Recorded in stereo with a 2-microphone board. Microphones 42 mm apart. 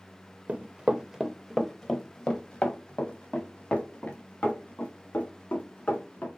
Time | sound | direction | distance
0.5 | running footsteps | 35° right (ahead or behind) | 0.7 m